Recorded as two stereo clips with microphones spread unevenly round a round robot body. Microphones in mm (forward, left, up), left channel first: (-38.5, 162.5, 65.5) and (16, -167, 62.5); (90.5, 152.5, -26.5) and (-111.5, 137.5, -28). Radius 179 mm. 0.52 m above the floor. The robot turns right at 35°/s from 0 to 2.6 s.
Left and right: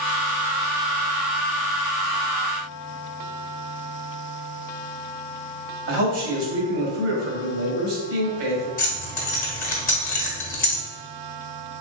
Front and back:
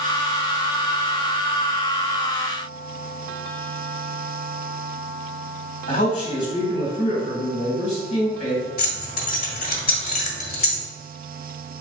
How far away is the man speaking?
About 1.2 m.